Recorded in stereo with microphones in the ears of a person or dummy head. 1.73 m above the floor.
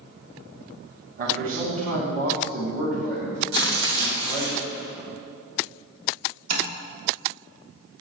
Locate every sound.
1.2 s a man speaking: 50° right (ahead or behind), 3 m
3.5 s tearing paper: 75° right (ahead or behind), 3 m
6.5 s tapping: 45° right (ahead or behind), 3.5 m